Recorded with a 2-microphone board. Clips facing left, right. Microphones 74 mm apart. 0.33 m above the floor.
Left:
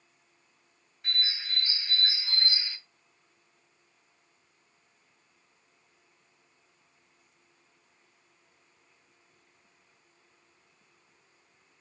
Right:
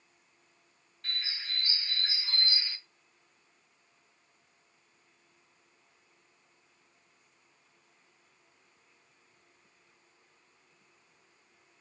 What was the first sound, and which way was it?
A bird, 10° left (ahead or behind).